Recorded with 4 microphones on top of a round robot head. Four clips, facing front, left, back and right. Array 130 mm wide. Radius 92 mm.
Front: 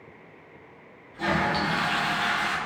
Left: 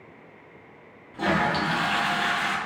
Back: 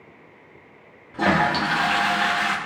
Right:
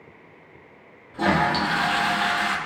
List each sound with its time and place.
1.1 s a toilet flushing: 170° right, 1.7 m